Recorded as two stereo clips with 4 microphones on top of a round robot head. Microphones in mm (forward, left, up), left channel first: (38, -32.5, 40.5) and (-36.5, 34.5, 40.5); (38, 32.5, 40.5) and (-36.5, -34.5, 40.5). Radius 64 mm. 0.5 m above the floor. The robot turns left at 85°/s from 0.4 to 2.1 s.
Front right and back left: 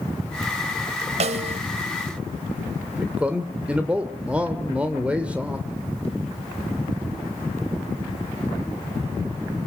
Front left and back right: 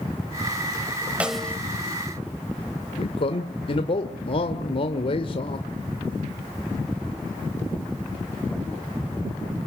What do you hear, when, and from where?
1.2 s a snare drum: 145° left, 1.8 m; by 1.6 s 110° left, 1.8 m
3.0 s a man speaking: 60° left, 1.8 m